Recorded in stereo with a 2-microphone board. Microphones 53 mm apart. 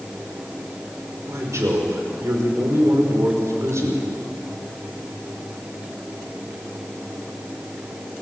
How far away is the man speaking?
About 5 m.